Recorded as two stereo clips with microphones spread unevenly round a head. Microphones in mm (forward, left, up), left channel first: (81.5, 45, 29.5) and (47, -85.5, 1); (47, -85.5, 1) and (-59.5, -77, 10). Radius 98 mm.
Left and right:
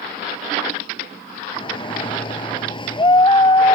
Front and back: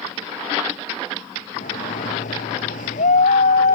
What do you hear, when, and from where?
1.6 s a shout: 25° left; by 3.8 s 20° left